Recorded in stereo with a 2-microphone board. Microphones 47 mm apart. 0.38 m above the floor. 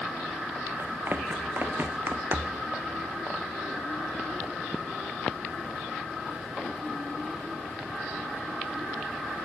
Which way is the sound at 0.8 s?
50° right (ahead or behind).